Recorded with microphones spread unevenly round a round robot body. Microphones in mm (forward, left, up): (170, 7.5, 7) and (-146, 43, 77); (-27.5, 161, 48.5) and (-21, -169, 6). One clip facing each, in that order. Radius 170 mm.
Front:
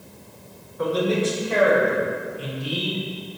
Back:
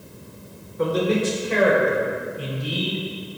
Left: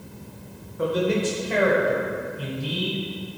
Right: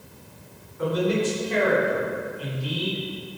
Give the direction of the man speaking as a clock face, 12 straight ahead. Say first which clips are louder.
Back 1 dB, even; 8 o'clock.